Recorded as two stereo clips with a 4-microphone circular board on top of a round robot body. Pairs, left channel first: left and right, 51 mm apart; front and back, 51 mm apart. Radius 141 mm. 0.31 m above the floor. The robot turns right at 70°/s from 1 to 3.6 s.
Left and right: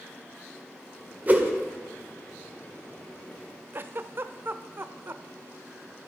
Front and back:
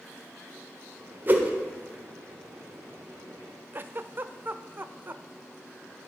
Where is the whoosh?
140° right, 1.8 m; by 1.5 s 125° right, 1.8 m.